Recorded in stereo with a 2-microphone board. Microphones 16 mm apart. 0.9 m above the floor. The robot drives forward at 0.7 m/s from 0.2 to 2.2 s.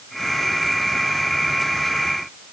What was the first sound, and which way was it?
Only background noise.